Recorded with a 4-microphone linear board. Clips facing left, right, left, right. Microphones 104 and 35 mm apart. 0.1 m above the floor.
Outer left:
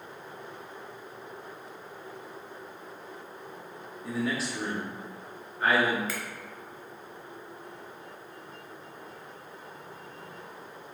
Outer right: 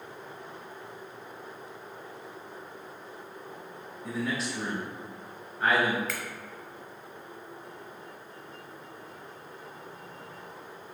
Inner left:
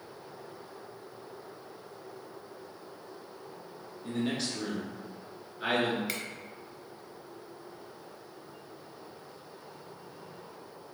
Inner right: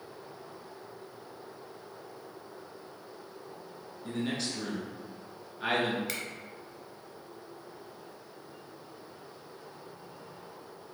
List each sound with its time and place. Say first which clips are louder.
4.0 s a man speaking: outer left 1 dB, inner left 1 dB; centre (ahead or behind), 1.1 m
6.1 s a finger snap: even, inner left 1 dB; 5° left (ahead or behind), 1.0 m